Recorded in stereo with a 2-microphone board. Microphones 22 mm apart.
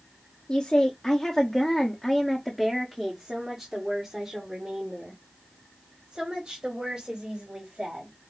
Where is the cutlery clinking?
I don't hear cutlery clinking.